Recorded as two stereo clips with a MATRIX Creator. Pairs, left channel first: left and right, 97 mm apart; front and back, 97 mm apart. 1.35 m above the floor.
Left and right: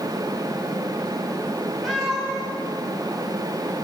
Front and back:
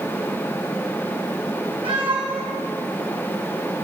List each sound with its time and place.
1.8 s a cat meowing: straight behind, 3 m